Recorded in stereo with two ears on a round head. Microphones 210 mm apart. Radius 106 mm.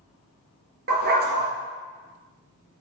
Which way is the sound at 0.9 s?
40° right (ahead or behind).